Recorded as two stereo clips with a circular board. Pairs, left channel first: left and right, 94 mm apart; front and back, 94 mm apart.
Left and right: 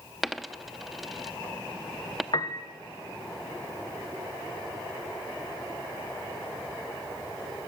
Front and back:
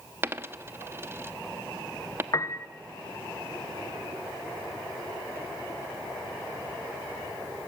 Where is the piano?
50° left, 1.3 m.